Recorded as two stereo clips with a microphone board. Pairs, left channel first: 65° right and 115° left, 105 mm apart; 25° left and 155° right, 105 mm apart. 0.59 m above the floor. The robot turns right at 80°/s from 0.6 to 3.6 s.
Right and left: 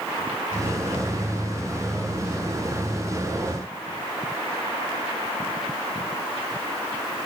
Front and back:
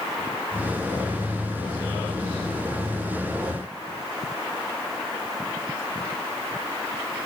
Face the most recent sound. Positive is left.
No sound to turn to.